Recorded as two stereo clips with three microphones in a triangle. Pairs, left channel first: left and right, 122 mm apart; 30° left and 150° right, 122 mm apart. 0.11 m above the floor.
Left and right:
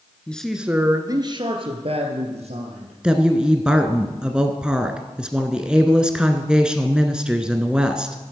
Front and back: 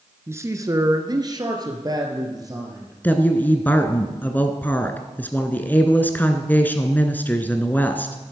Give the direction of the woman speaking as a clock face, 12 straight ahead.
1 o'clock.